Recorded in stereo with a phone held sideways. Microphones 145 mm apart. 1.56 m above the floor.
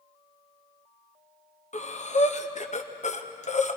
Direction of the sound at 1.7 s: 55° left (ahead or behind).